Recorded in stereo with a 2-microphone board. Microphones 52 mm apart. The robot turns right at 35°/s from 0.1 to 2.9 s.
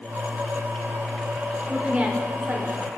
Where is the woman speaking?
160° right, 2.0 m; by 2.9 s 120° right, 2.0 m.